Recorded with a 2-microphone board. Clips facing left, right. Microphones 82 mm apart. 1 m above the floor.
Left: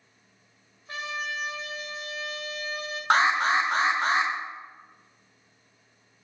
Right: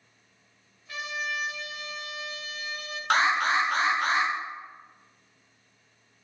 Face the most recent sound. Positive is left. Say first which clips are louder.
# left 2 dB
turn(degrees=25)  # may be behind; listen again after turning